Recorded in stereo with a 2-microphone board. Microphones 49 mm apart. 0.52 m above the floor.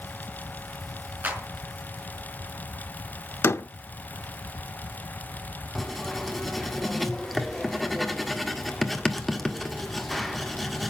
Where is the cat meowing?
No cat meowing in this recording.